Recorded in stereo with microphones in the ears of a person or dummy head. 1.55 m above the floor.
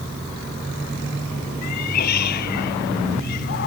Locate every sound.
1.6 s a cat meowing: 60° left (ahead or behind)